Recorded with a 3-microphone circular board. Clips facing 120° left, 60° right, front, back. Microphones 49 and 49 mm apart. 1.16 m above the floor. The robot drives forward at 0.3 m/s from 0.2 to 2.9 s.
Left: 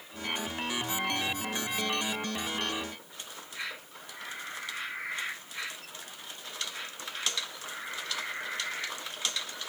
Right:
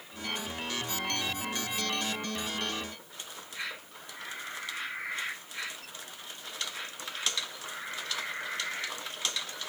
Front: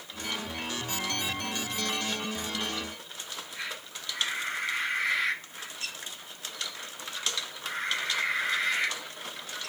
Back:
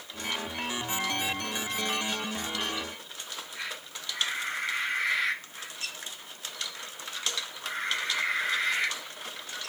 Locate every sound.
Only background noise.